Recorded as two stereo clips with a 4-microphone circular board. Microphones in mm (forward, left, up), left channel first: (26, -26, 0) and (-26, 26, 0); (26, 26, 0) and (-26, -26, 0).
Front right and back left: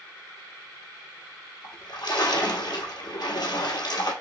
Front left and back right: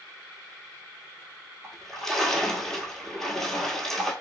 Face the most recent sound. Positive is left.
turn(degrees=-40)